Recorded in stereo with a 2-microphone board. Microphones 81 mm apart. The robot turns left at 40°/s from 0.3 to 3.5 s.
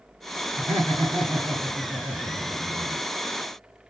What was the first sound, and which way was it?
Laughter, 30° left.